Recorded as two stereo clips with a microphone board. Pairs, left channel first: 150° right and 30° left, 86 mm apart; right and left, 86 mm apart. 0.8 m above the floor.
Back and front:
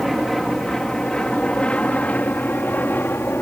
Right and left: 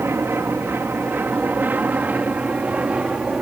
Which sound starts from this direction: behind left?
An aircraft, at 0.0 s.